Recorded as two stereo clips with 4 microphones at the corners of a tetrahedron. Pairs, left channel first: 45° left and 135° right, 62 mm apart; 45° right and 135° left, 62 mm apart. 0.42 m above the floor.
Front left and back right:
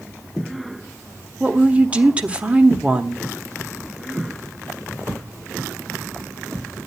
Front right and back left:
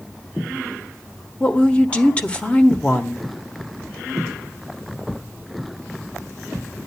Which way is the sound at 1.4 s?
90° right.